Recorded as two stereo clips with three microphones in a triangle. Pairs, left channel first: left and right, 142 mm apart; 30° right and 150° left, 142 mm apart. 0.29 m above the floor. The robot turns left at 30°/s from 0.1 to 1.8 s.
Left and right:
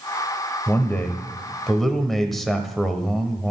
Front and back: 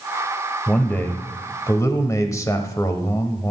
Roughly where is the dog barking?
I don't hear a dog barking.